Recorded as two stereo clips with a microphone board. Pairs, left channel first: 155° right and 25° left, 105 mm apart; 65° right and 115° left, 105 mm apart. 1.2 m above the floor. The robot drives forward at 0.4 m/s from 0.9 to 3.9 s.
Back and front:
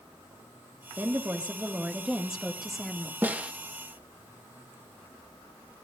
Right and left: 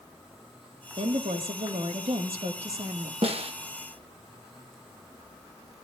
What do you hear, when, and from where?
1.0 s a woman speaking: 90° left, 1.9 m; by 3.1 s 115° left, 2 m
3.2 s a snare drum: 95° left, 1.3 m; by 3.5 s 100° left, 1.3 m